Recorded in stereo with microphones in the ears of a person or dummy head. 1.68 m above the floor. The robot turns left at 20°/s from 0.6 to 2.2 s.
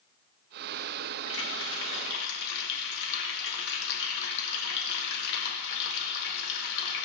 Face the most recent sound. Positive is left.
turn(degrees=65)  # may be behind; listen again after turning